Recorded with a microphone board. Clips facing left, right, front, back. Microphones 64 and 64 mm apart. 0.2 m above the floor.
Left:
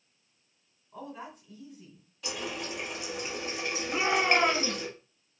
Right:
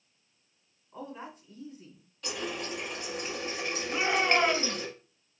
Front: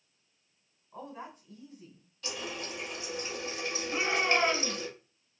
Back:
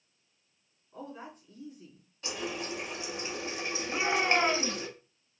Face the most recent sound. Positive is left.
turn(degrees=130)